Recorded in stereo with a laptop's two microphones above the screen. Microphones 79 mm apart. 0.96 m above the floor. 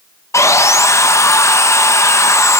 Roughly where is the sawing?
Left.